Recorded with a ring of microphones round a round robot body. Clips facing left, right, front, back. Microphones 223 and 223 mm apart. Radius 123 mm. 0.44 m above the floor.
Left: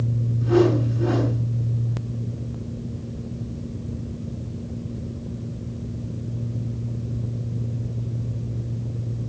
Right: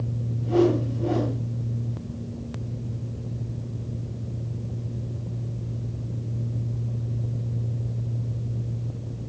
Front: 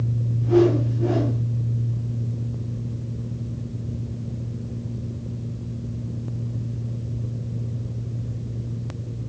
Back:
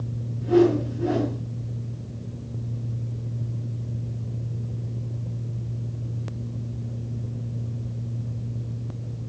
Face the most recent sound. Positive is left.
turn(degrees=100)